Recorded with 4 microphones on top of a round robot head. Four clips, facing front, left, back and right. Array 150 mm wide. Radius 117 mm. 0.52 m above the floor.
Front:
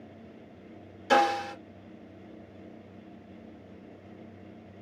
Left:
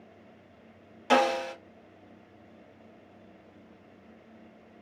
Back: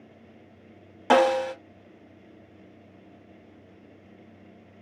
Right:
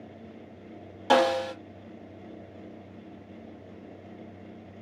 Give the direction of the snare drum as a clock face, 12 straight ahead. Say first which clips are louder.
Right 2 dB, back 4 dB; 5 o'clock.